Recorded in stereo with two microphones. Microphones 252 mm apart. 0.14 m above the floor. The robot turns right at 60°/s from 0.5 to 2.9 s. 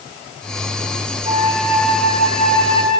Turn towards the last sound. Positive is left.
turn(degrees=80)